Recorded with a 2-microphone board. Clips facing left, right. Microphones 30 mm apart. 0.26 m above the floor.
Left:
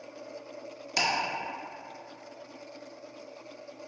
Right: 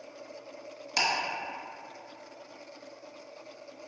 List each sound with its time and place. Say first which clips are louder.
1.0 s ticking: even; 10° right (ahead or behind), 1.1 m